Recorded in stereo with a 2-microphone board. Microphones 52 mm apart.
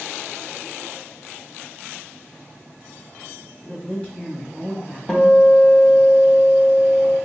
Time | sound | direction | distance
3.6 | a man speaking | 20° left (ahead or behind) | 1.6 m
5.1 | a guitar | 5° left (ahead or behind) | 0.7 m